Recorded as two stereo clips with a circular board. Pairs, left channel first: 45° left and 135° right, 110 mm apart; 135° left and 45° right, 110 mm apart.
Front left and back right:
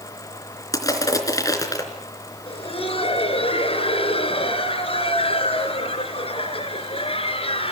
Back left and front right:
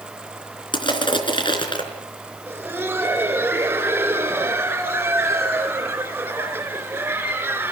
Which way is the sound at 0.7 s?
100° left.